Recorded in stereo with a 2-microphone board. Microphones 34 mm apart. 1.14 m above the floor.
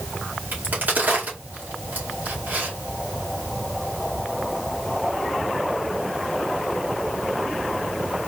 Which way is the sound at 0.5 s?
60° right (ahead or behind).